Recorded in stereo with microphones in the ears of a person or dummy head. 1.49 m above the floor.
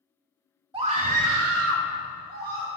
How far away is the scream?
About 0.7 m.